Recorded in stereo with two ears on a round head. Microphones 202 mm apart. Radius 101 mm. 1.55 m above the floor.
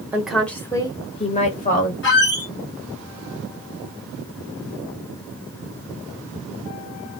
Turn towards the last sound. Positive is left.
turn(degrees=50)  # may be behind; listen again after turning